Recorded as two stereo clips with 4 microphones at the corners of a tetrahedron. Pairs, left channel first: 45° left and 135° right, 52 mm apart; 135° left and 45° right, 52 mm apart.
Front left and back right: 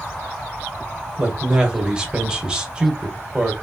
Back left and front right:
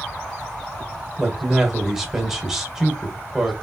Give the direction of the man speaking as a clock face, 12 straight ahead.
4 o'clock.